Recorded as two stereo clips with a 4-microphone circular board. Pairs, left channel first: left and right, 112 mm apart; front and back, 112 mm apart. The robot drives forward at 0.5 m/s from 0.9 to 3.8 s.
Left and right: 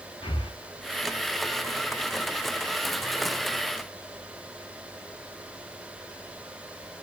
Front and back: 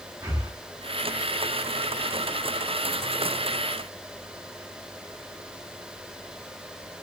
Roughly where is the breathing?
Behind left.